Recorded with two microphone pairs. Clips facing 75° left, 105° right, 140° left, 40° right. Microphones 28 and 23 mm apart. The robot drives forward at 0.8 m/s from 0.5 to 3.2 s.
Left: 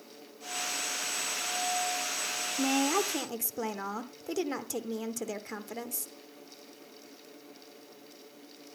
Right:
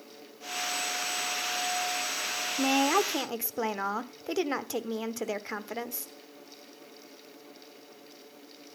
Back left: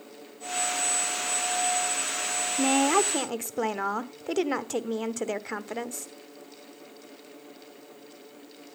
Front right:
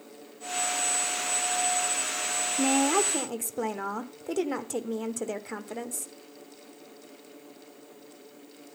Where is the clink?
No clink in this recording.